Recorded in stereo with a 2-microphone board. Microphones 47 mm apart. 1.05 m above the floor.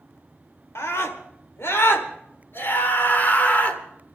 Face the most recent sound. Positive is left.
turn(degrees=30)  # may be behind; listen again after turning